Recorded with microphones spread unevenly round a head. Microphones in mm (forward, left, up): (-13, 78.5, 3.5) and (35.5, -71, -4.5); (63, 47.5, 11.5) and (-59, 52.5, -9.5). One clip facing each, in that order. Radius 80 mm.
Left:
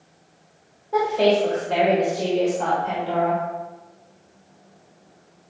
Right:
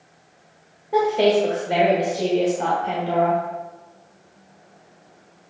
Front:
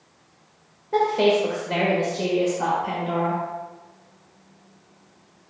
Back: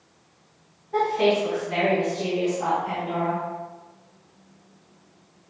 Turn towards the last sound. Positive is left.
turn(degrees=0)